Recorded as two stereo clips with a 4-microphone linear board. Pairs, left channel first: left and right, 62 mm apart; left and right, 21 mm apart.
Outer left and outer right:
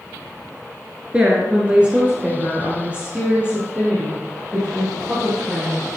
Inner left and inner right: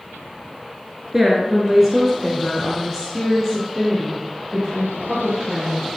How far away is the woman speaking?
About 2.0 m.